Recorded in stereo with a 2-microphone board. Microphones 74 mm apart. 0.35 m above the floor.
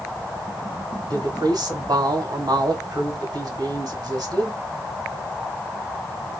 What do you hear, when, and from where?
1.1 s a woman speaking: 60° right (ahead or behind), 1.9 m